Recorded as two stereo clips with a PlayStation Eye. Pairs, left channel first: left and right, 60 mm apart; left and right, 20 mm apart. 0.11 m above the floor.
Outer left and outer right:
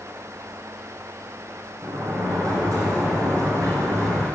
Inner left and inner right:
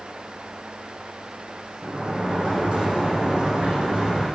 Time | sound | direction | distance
1.8 | a sliding door | 65° right (ahead or behind) | 5 m